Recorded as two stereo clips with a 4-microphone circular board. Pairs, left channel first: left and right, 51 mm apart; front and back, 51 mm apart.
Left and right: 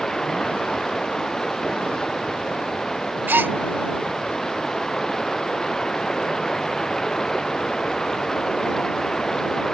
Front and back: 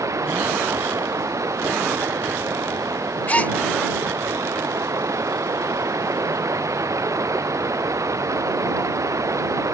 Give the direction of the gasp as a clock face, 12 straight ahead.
2 o'clock.